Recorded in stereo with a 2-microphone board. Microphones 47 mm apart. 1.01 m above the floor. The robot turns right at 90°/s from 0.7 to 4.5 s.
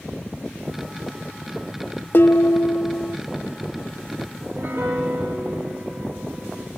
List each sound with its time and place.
2.1 s dishes clattering: 50° left, 0.8 m; by 3.2 s 145° left, 0.8 m
4.4 s a piano: 60° right (ahead or behind), 4.5 m; by 6.7 s 70° right (ahead or behind), 4.5 m